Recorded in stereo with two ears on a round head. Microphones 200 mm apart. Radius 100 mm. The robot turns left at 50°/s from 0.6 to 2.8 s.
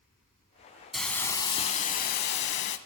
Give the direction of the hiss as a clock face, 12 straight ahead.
6 o'clock.